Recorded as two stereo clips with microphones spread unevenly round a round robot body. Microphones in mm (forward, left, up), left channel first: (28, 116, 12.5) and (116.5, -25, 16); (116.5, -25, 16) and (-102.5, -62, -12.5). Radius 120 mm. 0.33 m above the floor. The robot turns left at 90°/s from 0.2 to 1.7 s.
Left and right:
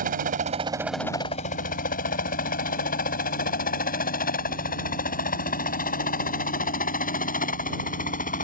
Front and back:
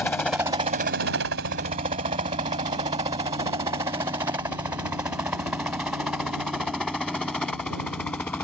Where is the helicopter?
70° right; by 8.4 s 95° left.